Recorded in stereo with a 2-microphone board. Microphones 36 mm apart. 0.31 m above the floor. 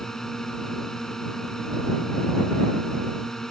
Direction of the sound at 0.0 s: 15° left (ahead or behind).